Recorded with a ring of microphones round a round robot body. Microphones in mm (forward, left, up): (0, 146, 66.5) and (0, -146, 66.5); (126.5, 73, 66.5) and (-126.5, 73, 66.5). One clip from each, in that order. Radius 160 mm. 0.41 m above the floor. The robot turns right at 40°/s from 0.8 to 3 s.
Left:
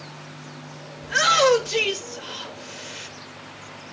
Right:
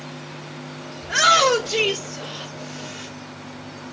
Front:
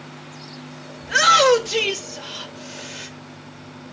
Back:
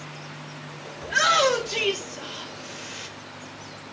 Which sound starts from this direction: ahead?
A shout, at 1.0 s.